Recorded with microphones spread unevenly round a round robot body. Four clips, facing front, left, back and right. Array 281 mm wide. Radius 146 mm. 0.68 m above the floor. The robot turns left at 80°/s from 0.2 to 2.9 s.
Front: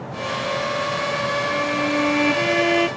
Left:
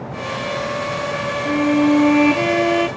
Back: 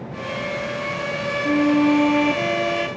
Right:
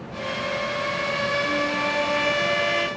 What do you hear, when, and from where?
1.4 s a violin: 155° left; by 2.9 s 40° left